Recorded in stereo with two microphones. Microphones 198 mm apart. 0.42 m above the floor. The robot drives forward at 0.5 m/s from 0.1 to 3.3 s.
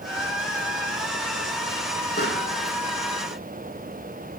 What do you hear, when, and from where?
2.2 s a pop: 55° left (ahead or behind), 6 m